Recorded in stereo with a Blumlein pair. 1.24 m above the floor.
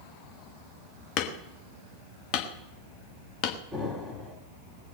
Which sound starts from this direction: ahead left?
Hammering, at 1.2 s.